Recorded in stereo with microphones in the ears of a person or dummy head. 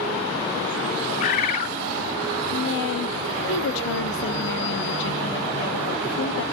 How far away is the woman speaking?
About 1.4 m.